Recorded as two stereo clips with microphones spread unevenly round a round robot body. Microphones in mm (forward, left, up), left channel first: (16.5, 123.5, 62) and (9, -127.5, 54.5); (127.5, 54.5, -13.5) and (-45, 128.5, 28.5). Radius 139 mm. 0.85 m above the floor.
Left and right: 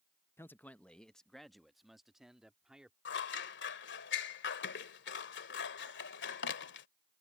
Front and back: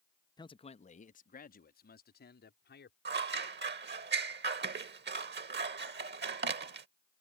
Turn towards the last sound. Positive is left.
turn(degrees=135)